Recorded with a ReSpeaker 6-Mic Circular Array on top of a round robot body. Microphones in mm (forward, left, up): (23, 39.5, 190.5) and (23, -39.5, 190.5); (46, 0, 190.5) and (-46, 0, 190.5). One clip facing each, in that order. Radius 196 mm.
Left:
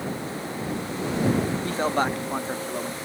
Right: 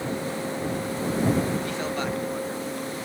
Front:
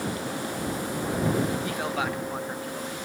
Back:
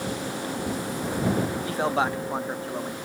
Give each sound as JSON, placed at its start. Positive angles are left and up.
{"t": 1.6, "sound": "a man speaking", "azimuth_deg": 130}